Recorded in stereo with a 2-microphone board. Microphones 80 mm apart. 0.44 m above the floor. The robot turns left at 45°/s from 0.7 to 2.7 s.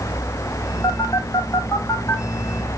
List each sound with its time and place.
0.8 s a phone buzzing: 45° left (ahead or behind), 1.3 m; by 2.2 s 25° left (ahead or behind), 1.3 m